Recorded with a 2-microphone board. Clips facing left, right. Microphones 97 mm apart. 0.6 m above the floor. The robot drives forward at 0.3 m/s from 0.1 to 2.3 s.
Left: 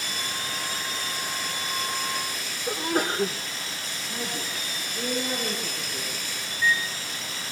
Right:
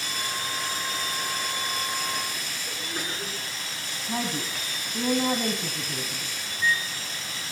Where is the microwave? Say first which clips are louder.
Left 1 dB; 40° right (ahead or behind), 4.5 m.